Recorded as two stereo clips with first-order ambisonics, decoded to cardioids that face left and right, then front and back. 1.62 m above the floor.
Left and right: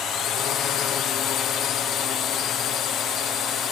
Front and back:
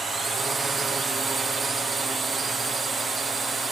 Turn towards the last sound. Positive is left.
turn(degrees=115)